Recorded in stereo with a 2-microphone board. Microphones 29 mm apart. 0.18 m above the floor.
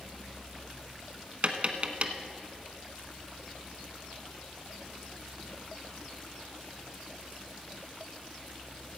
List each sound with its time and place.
1.4 s tapping: 45° right (ahead or behind), 0.8 m